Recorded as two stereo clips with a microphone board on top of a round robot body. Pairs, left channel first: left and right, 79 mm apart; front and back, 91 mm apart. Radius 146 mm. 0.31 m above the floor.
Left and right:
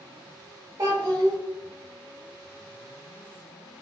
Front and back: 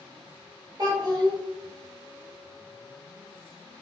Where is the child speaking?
140° right, 0.8 m.